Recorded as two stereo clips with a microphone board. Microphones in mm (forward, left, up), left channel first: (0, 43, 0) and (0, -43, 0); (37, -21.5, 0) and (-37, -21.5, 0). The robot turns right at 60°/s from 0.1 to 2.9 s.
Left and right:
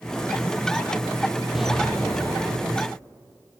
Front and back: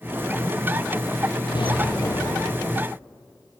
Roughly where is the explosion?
Ahead.